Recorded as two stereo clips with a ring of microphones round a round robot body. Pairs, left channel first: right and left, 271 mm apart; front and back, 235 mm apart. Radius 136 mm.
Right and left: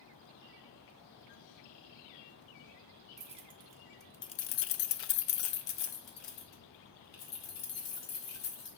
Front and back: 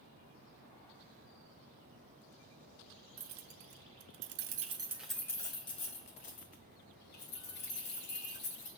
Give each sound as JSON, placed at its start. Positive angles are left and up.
{"t": 3.2, "sound": "keys jangling", "azimuth_deg": 155, "distance_m": 1.0}